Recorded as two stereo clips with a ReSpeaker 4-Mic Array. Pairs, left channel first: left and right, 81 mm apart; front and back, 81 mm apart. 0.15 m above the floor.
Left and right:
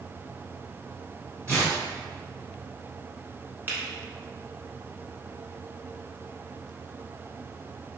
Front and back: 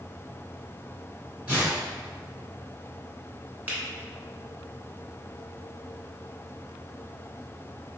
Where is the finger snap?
130° right, 1.0 m.